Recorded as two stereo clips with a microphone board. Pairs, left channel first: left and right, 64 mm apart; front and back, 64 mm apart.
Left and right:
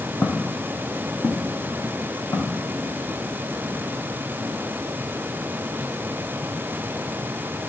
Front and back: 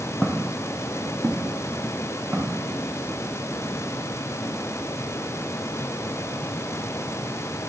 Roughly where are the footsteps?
Ahead left.